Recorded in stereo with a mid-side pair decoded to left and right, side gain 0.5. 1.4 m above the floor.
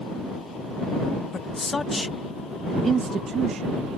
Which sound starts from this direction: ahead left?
A man speaking, at 1.3 s.